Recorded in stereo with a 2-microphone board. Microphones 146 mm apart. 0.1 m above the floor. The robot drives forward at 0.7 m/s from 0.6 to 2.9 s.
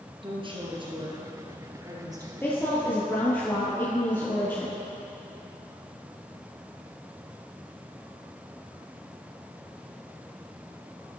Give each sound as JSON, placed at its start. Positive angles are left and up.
{"t": 0.2, "sound": "a woman speaking", "side_deg": -35, "distance_m": 1.9}
{"t": 2.4, "sound": "a woman speaking", "side_deg": 15, "distance_m": 1.9}